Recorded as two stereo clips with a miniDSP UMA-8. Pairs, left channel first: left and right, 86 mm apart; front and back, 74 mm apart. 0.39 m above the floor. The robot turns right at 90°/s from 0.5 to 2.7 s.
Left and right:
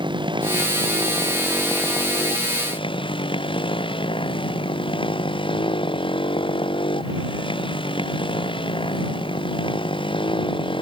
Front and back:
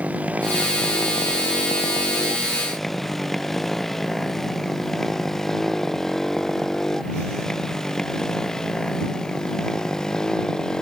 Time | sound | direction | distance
0.0 | a motorcycle | 110° right | ?